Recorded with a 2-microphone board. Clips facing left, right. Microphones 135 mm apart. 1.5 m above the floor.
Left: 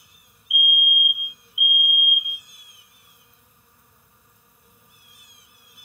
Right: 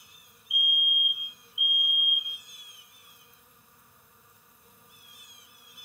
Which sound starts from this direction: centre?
A fire alarm, at 0.5 s.